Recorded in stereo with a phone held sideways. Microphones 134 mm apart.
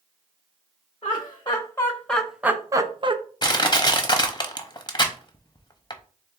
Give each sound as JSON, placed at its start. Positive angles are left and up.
{"t": 1.0, "sound": "laughter", "side_deg": 45, "distance_m": 1.0}
{"t": 3.4, "sound": "crushing", "side_deg": 35, "distance_m": 0.7}